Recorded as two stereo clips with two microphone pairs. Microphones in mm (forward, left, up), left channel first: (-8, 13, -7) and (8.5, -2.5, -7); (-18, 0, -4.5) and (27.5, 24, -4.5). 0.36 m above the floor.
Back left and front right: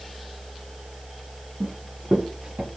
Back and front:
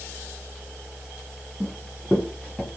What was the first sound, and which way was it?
Running footsteps, 65° right.